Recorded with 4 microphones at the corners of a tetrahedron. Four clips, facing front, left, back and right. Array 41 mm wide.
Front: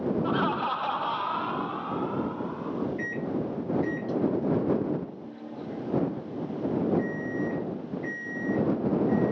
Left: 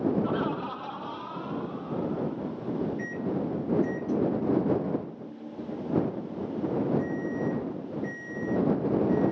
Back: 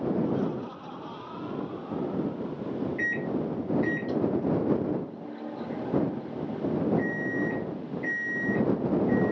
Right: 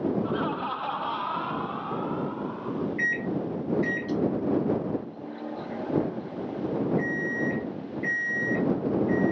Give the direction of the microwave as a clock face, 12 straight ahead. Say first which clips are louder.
Right 4 dB, back 2 dB; 4 o'clock.